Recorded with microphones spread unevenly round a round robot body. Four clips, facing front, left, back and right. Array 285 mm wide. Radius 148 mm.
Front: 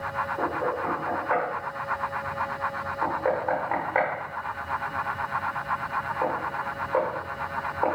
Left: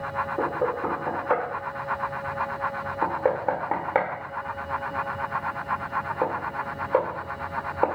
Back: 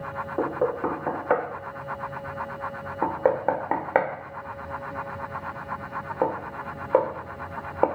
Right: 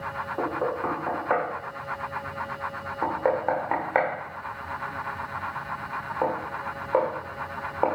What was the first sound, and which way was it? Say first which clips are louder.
Knocking: even, back 5 dB; 160° left.